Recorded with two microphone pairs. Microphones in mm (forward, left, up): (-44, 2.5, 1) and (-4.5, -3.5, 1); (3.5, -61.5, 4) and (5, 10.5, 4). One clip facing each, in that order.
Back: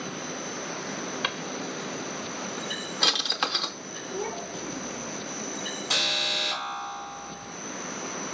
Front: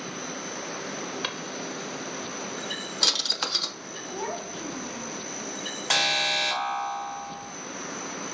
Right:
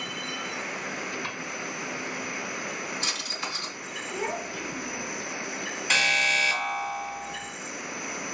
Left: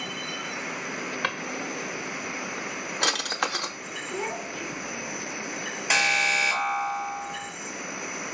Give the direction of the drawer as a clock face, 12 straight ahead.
9 o'clock.